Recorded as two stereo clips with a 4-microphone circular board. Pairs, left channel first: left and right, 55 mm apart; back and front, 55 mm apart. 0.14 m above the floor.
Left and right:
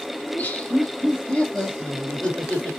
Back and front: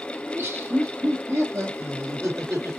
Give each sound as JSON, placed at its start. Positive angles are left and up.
{"t": 0.2, "sound": "laughter", "azimuth_deg": 35, "distance_m": 2.5}